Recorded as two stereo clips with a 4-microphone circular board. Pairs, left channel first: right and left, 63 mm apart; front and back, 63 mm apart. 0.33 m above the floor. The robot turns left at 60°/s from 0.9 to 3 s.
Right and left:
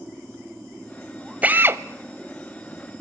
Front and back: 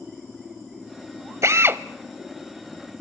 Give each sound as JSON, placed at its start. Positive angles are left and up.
{"t": 1.4, "sound": "a drill", "azimuth_deg": 150, "distance_m": 0.7}